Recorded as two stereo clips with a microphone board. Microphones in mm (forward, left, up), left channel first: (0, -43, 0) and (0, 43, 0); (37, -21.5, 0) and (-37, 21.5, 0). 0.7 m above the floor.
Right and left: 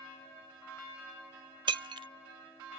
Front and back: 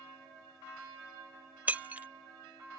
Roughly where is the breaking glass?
Left.